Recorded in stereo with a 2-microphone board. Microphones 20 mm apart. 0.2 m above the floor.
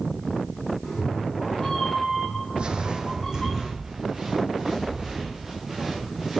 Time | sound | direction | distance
0.8 | a cat meowing | 20° left (ahead or behind) | 2 m
2.6 | footsteps | 55° right (ahead or behind) | 0.6 m